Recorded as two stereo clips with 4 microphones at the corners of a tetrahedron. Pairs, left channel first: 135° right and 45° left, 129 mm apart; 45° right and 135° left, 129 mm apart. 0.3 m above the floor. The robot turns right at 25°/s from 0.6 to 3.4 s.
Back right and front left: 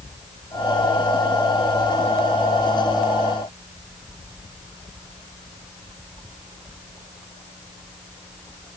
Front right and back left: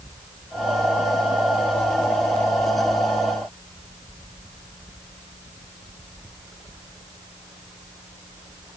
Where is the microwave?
No microwave in this recording.